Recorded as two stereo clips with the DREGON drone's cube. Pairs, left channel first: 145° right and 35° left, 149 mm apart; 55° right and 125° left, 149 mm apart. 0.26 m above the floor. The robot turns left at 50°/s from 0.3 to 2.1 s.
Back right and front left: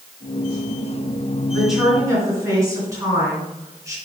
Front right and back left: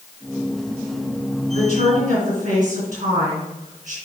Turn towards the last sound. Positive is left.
turn(degrees=100)